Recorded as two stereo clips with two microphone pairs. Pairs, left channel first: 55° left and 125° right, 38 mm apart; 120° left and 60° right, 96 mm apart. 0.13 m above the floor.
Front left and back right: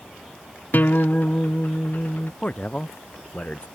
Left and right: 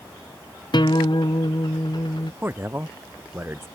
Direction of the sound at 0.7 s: 90° left.